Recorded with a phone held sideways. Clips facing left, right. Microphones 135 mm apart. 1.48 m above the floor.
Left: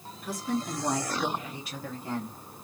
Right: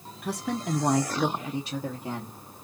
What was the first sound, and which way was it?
A woman speaking, 65° right (ahead or behind).